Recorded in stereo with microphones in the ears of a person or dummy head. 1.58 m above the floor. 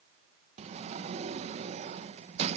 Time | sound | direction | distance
0.6 | a sliding door | 40° right (ahead or behind) | 1.5 m